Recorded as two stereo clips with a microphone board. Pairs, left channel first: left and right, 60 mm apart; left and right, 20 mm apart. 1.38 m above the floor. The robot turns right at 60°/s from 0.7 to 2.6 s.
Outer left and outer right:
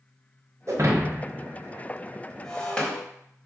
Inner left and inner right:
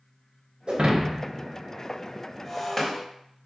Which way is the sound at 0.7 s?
55° right (ahead or behind).